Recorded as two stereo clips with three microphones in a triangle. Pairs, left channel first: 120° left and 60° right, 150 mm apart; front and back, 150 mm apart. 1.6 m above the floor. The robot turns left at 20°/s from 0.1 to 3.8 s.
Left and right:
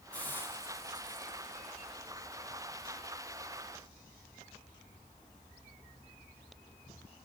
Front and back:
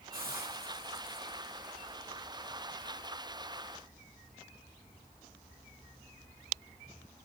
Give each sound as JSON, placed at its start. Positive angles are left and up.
{"t": 0.1, "sound": "a hiss", "azimuth_deg": -160, "distance_m": 3.0}